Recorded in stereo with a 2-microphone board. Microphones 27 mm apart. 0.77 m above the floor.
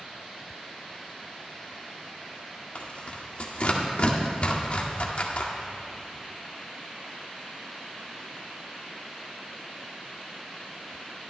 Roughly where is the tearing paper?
Left.